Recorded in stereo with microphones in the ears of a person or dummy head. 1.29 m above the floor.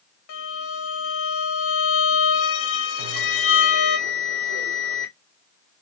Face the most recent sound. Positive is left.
turn(degrees=-55)  # may be behind; listen again after turning